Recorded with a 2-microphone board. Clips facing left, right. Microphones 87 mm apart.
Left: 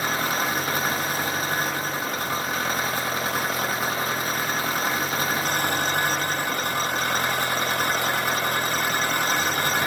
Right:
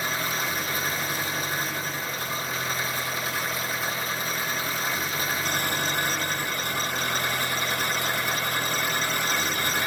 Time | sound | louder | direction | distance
0.0 | an engine running | left 4 dB | 55° left (ahead or behind) | 1.8 m